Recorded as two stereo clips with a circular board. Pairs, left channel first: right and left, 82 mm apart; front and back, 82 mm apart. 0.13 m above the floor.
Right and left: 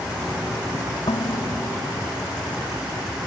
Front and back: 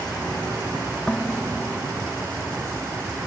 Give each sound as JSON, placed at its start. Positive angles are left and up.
{"t": 1.1, "sound": "dishes clattering", "azimuth_deg": -85}